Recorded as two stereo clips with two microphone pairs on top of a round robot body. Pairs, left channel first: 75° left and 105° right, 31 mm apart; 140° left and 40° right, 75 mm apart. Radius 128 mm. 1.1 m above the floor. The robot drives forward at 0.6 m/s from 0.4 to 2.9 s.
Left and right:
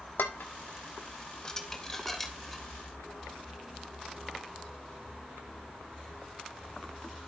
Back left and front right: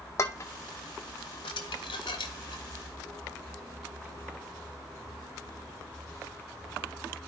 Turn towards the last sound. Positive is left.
turn(degrees=160)